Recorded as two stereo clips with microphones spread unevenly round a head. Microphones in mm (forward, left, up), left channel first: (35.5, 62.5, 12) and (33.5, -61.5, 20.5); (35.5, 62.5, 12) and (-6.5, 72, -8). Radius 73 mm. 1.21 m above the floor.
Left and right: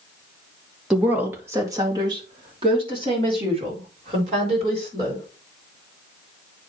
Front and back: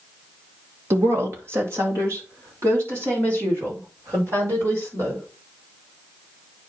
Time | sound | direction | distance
0.9 | a woman speaking | 175° right | 1.5 m